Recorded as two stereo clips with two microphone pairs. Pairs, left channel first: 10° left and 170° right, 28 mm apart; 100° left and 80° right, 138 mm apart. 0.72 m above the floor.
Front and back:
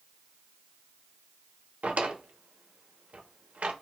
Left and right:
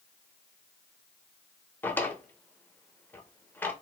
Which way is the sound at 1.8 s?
175° left.